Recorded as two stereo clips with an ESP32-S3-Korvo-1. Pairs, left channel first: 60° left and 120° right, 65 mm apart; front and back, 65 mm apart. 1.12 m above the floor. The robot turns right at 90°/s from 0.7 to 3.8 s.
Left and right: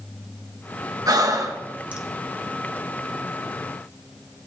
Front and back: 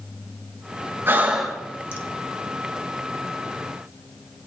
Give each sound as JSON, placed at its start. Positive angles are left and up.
{"t": 1.1, "sound": "breathing", "azimuth_deg": -130, "distance_m": 1.3}